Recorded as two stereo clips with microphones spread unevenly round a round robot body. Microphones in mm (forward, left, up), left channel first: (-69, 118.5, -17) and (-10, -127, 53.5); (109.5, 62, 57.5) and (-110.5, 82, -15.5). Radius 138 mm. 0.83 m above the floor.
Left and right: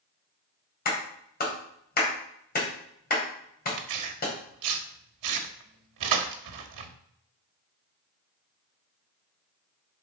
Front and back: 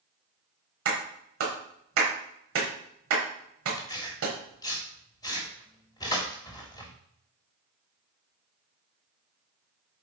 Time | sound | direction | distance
0.8 | a clap | 155° left | 3.5 m
3.8 | tearing paper | 85° right | 1.3 m